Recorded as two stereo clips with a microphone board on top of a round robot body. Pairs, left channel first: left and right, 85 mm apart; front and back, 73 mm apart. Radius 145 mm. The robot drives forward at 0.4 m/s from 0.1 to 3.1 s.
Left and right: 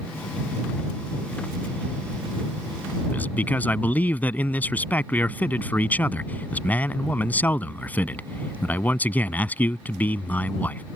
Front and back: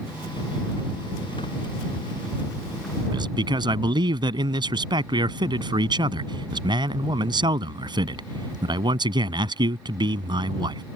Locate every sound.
3.1 s a man speaking: 160° left